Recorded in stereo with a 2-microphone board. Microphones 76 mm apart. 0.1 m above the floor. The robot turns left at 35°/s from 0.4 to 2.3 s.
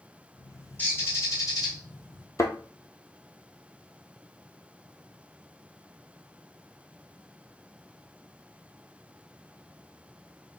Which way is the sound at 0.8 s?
155° left.